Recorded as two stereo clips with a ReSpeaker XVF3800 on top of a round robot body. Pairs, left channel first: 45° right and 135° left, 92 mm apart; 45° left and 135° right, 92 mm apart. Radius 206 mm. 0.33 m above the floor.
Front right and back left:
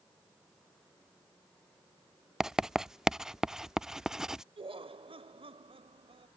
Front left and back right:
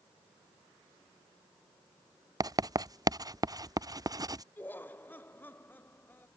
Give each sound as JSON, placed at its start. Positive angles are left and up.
{"t": 2.4, "sound": "writing", "azimuth_deg": -145}
{"t": 4.6, "sound": "laughter", "azimuth_deg": 115}